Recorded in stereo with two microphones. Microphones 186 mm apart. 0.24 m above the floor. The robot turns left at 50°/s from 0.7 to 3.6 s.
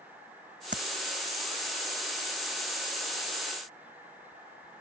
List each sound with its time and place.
0.7 s tapping: 80° right; by 0.8 s 85° right